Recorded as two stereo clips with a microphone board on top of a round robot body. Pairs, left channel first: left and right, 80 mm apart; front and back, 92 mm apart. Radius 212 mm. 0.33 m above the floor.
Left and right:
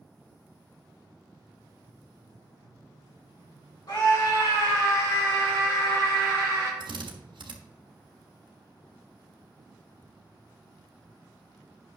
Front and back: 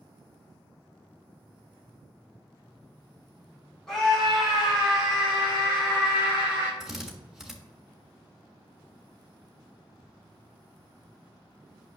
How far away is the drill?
About 1.3 m.